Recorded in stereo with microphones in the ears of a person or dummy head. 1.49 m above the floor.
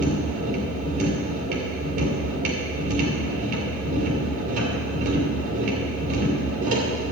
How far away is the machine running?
About 2.5 m.